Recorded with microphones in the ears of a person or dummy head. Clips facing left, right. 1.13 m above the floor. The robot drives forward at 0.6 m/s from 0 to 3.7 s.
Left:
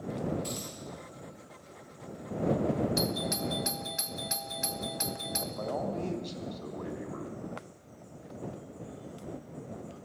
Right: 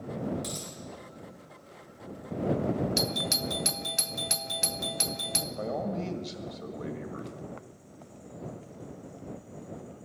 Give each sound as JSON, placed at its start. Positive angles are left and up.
{"t": 0.4, "sound": "a dropped coin", "side_deg": -80, "distance_m": 5.5}
{"t": 3.0, "sound": "a doorbell", "side_deg": -30, "distance_m": 0.7}
{"t": 5.6, "sound": "a man speaking", "side_deg": -25, "distance_m": 1.9}